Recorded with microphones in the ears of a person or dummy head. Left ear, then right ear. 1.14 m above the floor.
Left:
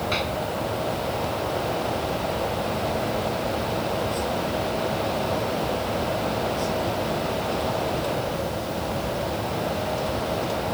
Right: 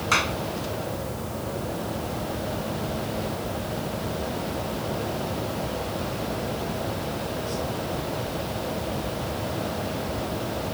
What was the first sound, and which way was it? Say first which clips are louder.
A clap: right 6 dB; 35° right (ahead or behind).